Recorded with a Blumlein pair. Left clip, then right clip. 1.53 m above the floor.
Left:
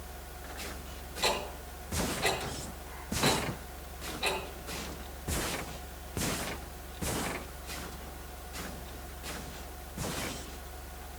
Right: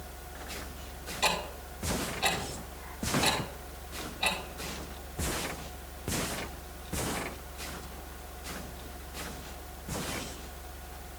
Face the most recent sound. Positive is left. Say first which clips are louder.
# right 1 dB
turn(degrees=-20)